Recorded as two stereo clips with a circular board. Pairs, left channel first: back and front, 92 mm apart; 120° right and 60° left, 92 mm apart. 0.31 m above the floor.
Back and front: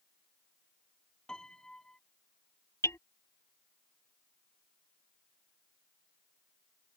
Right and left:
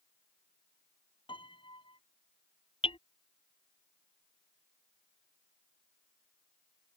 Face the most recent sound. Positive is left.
turn(degrees=-120)